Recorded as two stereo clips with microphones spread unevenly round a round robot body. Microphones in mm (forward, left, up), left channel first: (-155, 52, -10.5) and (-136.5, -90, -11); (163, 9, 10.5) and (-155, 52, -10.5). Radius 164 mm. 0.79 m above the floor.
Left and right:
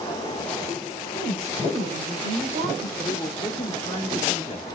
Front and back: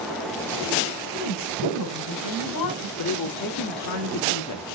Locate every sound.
1.1 s a woman speaking: 40° right, 3 m
3.0 s a woman speaking: 30° left, 2 m